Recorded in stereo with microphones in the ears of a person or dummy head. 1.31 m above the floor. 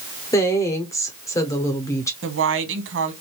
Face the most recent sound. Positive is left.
turn(degrees=-60)  # may be behind; listen again after turning